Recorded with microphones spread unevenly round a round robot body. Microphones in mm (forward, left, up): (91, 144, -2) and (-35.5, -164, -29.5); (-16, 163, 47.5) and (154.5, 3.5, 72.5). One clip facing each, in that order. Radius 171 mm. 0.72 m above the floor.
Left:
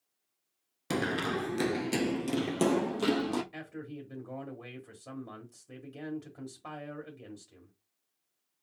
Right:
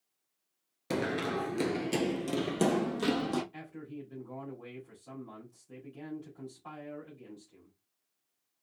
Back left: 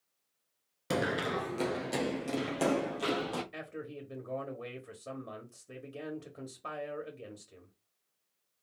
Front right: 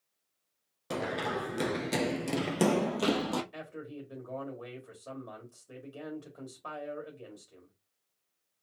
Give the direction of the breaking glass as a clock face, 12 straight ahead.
No breaking glass in this recording.